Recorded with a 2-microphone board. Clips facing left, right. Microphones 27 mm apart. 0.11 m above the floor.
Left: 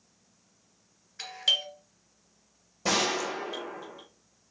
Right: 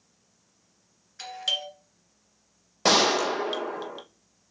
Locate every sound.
1.2 s a doorbell: 5° left (ahead or behind), 1.9 m
2.9 s a gunshot: 75° right (ahead or behind), 0.7 m